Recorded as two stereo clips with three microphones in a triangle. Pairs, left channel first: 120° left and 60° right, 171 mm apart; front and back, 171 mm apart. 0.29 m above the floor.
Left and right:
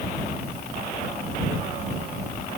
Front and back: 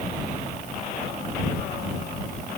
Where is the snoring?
No snoring in this recording.